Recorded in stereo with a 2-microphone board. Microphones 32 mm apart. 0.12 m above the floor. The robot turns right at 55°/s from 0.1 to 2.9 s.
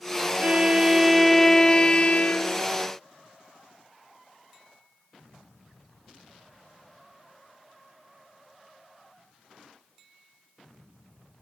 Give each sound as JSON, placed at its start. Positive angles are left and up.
{"t": 0.4, "sound": "a violin", "azimuth_deg": -45, "distance_m": 1.5}